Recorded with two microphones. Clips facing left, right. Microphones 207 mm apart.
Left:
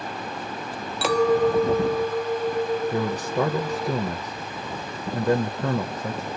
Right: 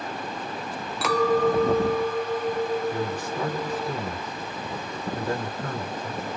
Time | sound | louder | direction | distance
1.0 | a clink | left 2 dB | 30° left (ahead or behind) | 0.7 m
2.9 | a man speaking | left 4 dB | 70° left (ahead or behind) | 0.9 m